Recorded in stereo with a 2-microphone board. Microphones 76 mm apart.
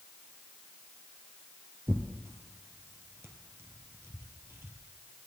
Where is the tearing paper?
30° right (ahead or behind), 1.4 m.